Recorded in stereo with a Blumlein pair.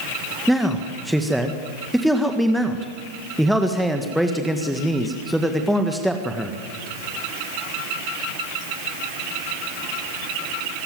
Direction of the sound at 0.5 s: Straight ahead.